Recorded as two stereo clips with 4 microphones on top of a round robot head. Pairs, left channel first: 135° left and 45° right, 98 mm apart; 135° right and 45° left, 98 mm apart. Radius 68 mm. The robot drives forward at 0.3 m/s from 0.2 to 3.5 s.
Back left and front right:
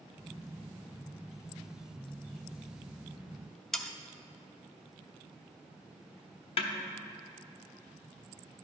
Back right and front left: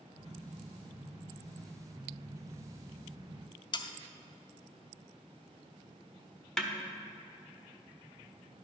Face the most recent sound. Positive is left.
turn(degrees=140)